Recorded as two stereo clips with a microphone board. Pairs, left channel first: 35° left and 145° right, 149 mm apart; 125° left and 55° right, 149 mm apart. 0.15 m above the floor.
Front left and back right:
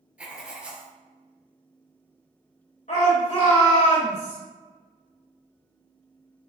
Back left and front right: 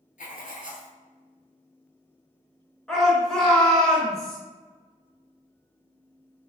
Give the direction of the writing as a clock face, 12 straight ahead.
8 o'clock.